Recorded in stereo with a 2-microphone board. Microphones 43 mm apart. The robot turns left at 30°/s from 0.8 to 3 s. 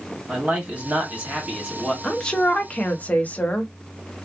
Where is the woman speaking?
15° left (ahead or behind), 0.9 m; by 3.7 s 40° left (ahead or behind), 0.9 m.